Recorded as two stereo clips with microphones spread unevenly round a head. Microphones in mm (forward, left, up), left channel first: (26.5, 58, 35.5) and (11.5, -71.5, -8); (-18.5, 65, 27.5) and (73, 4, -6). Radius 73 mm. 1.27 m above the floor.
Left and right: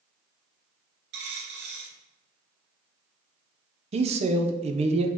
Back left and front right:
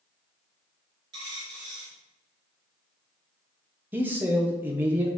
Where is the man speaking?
100° right, 0.8 m.